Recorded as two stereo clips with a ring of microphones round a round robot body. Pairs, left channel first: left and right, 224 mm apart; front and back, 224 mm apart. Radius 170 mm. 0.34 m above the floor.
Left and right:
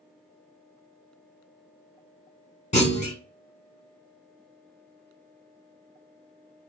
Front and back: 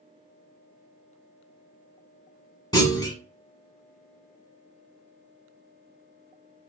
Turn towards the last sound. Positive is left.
turn(degrees=60)